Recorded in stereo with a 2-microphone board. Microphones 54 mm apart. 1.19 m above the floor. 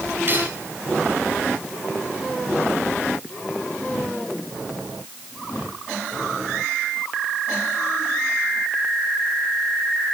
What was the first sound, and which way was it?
Cutlery clinking, 35° right (ahead or behind).